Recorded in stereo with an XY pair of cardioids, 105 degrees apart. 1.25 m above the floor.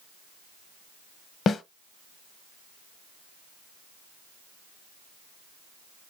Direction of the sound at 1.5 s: 55° left.